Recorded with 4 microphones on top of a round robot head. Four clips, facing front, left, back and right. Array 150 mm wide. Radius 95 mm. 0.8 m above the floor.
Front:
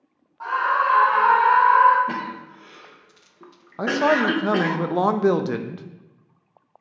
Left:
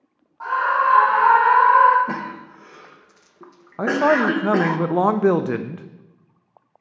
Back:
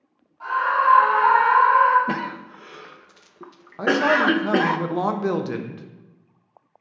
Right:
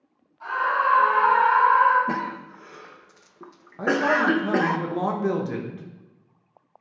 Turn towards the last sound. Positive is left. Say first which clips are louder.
# left 4 dB, even
turn(degrees=70)